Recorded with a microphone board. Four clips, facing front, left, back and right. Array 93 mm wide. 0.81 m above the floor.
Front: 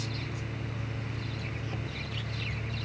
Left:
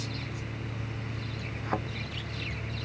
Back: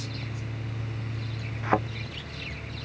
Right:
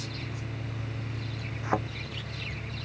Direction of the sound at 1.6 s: 160° right.